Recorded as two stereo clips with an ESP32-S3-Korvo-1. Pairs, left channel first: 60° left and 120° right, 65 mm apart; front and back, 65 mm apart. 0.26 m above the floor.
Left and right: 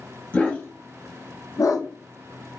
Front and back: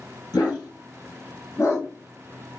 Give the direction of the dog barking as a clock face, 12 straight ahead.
12 o'clock.